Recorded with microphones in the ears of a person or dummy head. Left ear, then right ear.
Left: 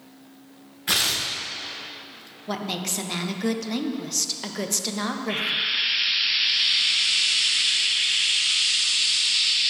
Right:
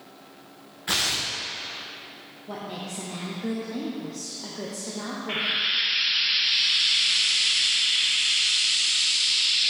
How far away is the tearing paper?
About 0.8 m.